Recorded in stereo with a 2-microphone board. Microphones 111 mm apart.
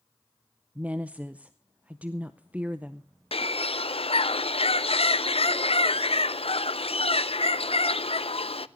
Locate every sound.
0.8 s a woman speaking: 15° right (ahead or behind), 0.6 m
3.3 s a bird: 60° left (ahead or behind), 0.5 m